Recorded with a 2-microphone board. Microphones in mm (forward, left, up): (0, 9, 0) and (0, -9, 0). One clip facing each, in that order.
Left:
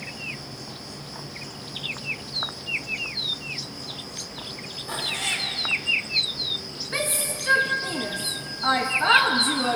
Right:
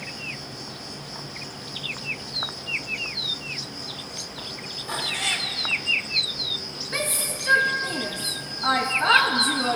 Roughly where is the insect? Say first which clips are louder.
Right 1 dB; right.